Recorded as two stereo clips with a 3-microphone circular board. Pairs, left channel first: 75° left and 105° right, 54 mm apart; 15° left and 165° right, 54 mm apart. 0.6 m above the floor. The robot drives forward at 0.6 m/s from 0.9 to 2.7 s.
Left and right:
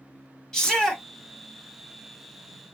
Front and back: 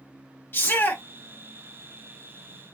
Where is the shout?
5° left, 1.2 m.